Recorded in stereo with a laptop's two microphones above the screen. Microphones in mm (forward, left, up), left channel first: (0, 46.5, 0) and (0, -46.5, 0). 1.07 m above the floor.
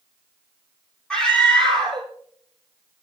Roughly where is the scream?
Centre.